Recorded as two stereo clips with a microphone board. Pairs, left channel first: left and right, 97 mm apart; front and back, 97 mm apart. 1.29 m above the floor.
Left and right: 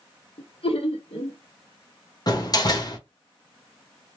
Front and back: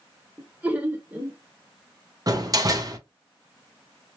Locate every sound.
0.4 s laughter: 105° left, 1.0 m
2.3 s a door slam: 135° left, 0.8 m